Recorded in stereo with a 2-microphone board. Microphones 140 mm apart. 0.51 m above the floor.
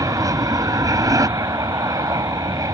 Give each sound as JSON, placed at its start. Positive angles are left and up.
{"t": 0.0, "sound": "an aircraft", "side_deg": -20}